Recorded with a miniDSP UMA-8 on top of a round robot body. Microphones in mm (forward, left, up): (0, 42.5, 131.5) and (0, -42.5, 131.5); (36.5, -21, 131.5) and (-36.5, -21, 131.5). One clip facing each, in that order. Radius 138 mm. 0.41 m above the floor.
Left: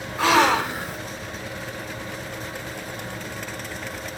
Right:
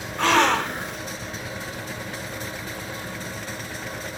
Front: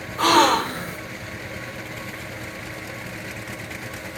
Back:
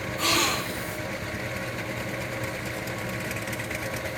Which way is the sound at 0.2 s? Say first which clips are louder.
Left 1 dB, front 11 dB; 5° left.